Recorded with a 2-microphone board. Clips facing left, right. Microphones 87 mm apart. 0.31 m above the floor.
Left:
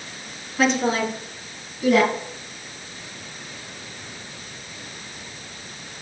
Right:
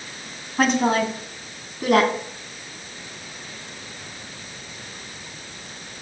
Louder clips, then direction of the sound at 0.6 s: Right 1 dB; 50° right (ahead or behind).